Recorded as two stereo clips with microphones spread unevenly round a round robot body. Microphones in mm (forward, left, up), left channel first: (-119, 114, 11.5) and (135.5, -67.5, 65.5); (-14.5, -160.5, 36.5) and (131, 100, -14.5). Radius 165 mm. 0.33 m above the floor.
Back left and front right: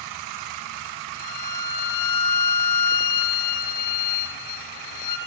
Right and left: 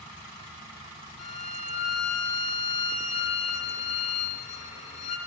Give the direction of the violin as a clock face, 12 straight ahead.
6 o'clock.